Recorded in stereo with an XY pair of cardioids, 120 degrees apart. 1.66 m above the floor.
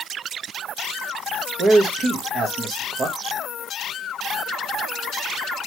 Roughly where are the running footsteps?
No running footsteps in this recording.